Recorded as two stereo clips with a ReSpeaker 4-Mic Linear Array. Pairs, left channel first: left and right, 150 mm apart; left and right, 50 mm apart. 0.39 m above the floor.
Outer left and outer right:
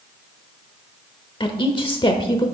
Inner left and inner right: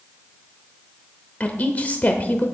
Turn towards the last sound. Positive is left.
turn(degrees=35)  # may be behind; listen again after turning